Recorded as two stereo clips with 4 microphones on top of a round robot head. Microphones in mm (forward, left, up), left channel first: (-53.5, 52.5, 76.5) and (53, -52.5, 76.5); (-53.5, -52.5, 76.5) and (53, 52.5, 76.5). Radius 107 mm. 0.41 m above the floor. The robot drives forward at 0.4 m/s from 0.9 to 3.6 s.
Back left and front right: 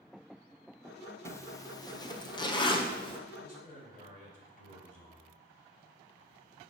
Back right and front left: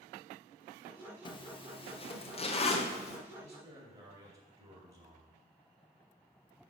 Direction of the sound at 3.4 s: 110° left.